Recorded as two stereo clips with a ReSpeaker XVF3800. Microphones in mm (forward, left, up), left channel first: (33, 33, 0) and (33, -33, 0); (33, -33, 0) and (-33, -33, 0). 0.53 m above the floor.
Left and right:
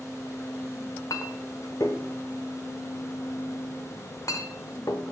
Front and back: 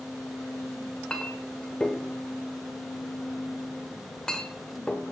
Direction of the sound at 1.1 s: 75° left.